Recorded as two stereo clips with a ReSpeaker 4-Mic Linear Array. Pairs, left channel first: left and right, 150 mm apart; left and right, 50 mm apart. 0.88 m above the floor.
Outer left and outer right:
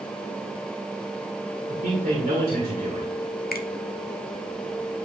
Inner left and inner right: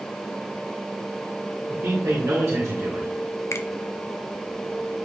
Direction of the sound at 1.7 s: 85° right.